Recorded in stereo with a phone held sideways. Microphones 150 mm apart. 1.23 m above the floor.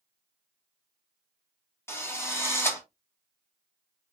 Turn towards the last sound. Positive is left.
turn(degrees=15)  # may be behind; listen again after turning